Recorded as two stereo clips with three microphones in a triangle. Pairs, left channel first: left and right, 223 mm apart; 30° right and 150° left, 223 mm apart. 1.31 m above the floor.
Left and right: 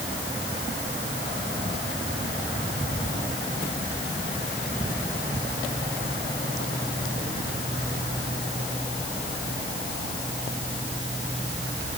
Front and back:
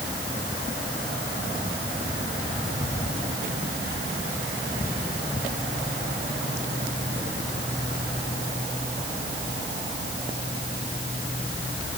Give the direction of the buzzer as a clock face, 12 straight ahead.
No buzzer in this recording.